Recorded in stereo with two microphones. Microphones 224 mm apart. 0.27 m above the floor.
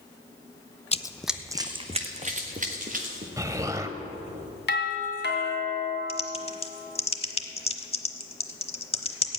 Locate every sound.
0.9 s running footsteps: 30° left (ahead or behind), 0.5 m; by 3.3 s 40° right (ahead or behind), 2.5 m
3.4 s an explosion: 15° right (ahead or behind), 0.8 m
4.7 s a doorbell: 55° left (ahead or behind), 2.5 m
6.1 s typing on a keyboard: 25° left (ahead or behind), 0.9 m